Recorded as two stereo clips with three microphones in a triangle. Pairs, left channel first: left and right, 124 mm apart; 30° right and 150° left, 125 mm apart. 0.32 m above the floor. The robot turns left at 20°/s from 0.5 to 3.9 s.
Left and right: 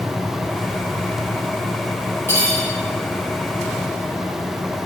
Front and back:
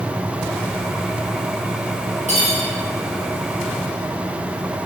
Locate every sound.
2.3 s cutlery clinking: 160° left, 2.0 m; by 2.6 s 155° left, 2.0 m